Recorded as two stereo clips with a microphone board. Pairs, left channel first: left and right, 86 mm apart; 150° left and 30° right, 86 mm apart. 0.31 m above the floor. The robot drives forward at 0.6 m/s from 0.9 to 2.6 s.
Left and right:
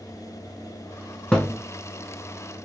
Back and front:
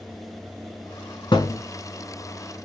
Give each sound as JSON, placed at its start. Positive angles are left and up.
{"t": 1.3, "sound": "a thud", "azimuth_deg": 165, "distance_m": 1.0}